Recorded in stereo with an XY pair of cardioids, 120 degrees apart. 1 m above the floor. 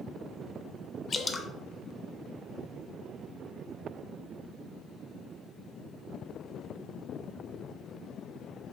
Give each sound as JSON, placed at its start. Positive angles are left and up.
{"t": 1.1, "sound": "dripping", "azimuth_deg": 25, "distance_m": 0.5}